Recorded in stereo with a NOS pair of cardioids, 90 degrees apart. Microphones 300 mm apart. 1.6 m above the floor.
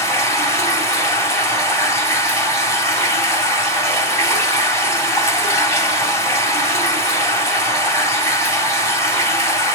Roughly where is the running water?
Ahead.